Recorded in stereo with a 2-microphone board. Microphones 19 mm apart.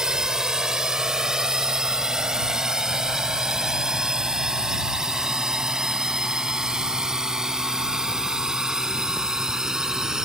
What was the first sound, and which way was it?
A drone, 30° right (ahead or behind).